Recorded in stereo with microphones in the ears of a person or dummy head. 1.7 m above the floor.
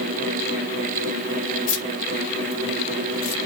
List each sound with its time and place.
1.7 s keys jangling: 65° left (ahead or behind), 1.6 m; by 3.4 s 20° left (ahead or behind), 0.7 m